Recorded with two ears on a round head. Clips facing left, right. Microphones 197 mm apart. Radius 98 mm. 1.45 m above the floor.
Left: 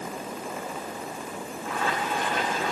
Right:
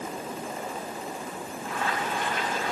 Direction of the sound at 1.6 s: 65° left (ahead or behind).